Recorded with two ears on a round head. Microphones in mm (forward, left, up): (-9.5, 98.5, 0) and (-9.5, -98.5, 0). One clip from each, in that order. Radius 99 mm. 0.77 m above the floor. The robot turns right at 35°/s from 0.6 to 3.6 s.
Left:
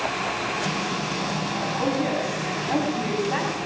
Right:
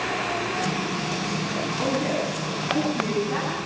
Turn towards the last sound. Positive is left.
turn(degrees=80)